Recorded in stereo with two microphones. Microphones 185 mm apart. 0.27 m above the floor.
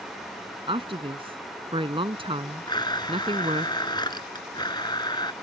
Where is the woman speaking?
30° right (ahead or behind).